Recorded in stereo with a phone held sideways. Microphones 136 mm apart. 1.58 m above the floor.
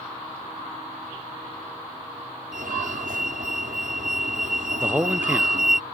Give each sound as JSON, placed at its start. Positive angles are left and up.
{"t": 2.5, "sound": "a fire alarm", "side_deg": -80}
{"t": 4.8, "sound": "a man speaking", "side_deg": -15}